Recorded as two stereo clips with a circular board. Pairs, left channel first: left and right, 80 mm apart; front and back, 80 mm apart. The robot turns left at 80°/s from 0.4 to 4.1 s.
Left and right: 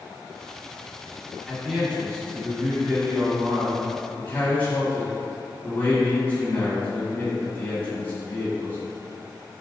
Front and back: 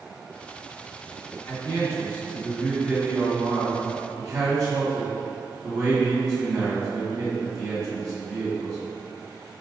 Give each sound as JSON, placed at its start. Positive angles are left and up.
{"t": 1.5, "sound": "a man speaking", "azimuth_deg": 5, "distance_m": 1.6}